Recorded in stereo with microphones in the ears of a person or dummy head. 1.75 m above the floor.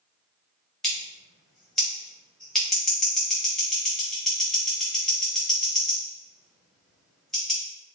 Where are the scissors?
Centre (ahead or behind), 0.8 m.